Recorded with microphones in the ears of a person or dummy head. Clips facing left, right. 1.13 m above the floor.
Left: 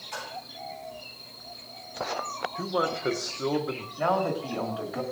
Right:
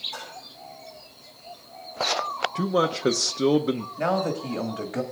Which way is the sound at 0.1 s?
85° left.